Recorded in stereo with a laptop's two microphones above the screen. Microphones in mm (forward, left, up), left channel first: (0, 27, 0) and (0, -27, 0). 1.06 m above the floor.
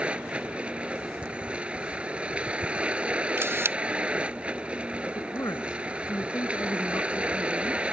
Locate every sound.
0.0 s a vehicle: 20° right (ahead or behind)
3.4 s a camera shutter: 50° right (ahead or behind)
5.1 s a woman speaking: 70° left (ahead or behind)